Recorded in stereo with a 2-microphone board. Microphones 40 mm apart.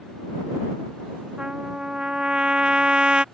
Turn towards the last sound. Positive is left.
turn(degrees=-20)  # may be behind; listen again after turning